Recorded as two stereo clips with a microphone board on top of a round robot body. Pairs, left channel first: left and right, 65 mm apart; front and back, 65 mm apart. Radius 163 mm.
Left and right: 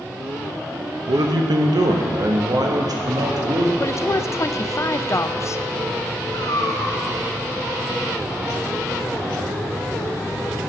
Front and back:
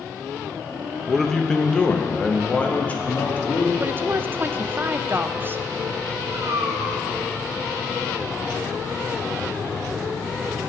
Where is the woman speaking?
125° left, 0.6 m.